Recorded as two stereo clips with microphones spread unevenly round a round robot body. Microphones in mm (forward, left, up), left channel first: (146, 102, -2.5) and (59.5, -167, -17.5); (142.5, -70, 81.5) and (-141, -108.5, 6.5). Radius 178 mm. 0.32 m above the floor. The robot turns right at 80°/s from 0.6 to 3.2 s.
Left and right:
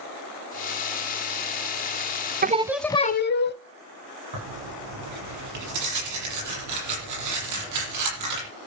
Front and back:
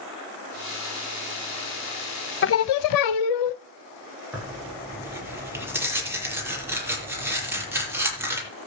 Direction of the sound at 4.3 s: 90° right.